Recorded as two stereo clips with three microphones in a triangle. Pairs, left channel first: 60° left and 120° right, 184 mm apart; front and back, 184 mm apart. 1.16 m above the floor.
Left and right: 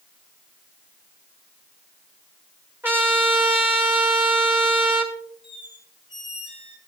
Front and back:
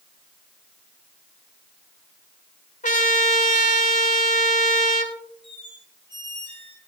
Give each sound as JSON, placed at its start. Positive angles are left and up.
{"t": 2.8, "sound": "a trumpet", "azimuth_deg": -40, "distance_m": 1.4}
{"t": 5.4, "sound": "a squeak", "azimuth_deg": 60, "distance_m": 2.5}